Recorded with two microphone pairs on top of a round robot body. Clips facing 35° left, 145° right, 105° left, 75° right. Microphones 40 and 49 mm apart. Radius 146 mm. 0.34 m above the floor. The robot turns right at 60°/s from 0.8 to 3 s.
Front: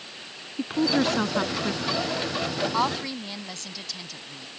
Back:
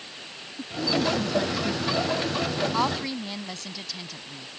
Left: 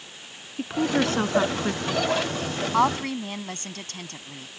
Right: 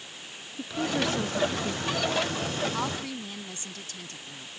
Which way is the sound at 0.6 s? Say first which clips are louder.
Front 3 dB, left 5 dB; 50° left.